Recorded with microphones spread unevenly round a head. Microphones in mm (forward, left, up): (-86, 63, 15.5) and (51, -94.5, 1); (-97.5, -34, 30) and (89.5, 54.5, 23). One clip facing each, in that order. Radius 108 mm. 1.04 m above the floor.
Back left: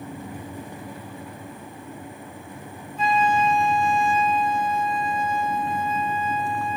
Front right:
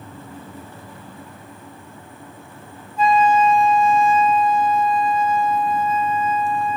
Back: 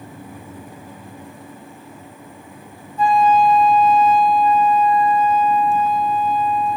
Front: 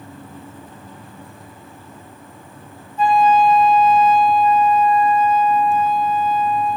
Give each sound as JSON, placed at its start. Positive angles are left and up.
{"t": 3.0, "sound": "a flute", "azimuth_deg": -45, "distance_m": 1.4}